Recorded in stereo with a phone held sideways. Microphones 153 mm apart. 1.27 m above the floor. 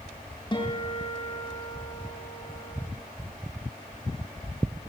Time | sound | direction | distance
0.5 | a guitar | 30° left (ahead or behind) | 7 m